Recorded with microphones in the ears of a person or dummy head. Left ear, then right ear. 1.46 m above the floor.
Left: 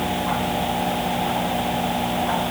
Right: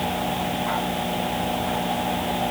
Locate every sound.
Only background noise.